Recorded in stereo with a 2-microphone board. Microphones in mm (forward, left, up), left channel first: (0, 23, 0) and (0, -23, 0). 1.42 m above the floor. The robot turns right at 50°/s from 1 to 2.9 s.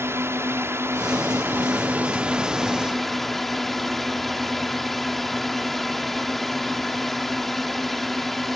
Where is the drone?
90° right; by 8.6 s 5° left.